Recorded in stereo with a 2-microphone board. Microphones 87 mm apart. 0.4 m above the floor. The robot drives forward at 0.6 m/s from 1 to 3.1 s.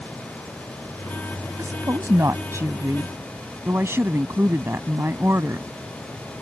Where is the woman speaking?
40° right (ahead or behind); by 5.7 s 30° right (ahead or behind).